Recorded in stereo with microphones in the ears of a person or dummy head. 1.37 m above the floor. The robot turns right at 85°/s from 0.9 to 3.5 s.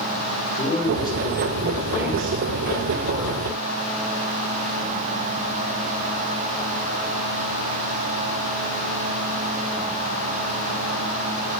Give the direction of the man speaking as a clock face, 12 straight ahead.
7 o'clock.